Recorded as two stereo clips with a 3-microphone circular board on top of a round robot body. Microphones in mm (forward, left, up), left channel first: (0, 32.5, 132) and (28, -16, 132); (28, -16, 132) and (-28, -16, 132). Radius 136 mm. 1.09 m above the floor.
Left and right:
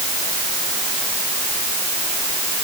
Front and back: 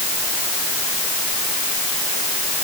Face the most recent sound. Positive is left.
No sound to turn to.